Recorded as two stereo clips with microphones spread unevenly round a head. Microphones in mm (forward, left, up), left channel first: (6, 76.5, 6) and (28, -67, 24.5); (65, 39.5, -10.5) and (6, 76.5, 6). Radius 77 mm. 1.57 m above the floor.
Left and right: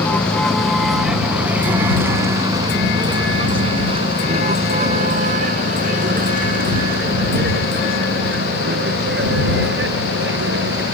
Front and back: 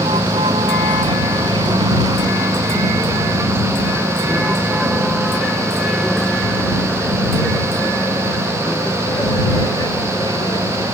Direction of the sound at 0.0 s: Straight behind.